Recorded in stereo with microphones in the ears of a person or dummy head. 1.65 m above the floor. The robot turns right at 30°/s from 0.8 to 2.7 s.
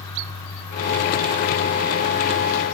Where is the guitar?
I don't hear a guitar.